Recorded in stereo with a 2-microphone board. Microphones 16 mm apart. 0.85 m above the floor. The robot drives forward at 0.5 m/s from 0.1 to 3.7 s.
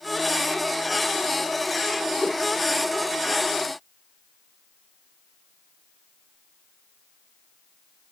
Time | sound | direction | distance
2.2 | a whoosh | 45° left (ahead or behind) | 2.5 m